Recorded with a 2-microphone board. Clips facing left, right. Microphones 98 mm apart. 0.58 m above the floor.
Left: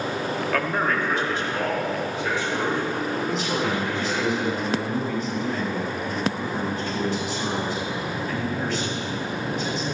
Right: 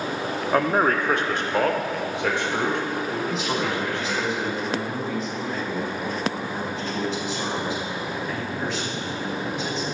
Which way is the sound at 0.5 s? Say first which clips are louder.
Right 5 dB; 25° right (ahead or behind).